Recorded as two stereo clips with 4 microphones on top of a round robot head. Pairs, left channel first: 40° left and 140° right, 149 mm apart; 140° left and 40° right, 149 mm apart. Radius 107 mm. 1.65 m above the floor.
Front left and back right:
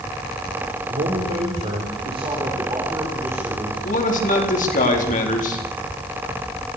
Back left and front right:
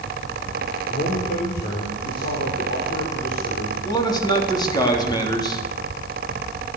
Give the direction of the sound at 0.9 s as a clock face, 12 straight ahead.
6 o'clock.